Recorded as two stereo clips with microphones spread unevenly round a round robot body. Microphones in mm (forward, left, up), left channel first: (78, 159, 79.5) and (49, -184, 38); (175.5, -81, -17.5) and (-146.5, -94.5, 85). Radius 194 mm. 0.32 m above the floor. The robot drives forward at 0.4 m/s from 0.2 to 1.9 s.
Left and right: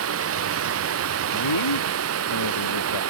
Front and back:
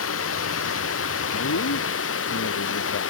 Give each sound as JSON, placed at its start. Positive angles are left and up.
{"t": 0.0, "sound": "running water", "azimuth_deg": -45}
{"t": 1.3, "sound": "a man speaking", "azimuth_deg": 60}